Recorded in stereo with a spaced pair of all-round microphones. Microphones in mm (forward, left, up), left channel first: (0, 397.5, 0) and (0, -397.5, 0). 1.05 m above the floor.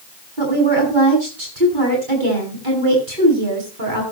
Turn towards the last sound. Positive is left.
turn(degrees=-80)